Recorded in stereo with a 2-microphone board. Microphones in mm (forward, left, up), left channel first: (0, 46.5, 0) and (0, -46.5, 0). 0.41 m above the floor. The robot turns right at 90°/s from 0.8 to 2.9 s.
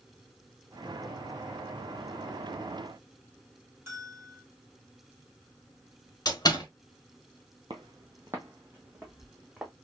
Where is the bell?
30° right (ahead or behind), 1.8 m.